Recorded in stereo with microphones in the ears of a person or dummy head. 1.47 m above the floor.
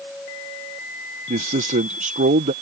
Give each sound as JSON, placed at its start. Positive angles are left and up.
{"t": 1.3, "sound": "a man speaking", "side_deg": -45}